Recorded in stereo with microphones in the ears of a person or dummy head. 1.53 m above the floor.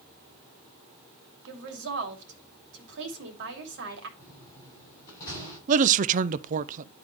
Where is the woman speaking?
70° right (ahead or behind), 2.5 m.